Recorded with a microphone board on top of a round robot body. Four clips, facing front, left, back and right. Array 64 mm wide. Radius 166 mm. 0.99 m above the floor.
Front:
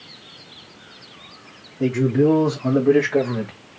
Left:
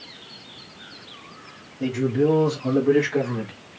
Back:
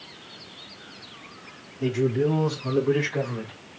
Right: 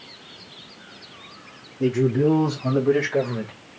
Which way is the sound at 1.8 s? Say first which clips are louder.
Right 2 dB, front 6 dB; 25° right.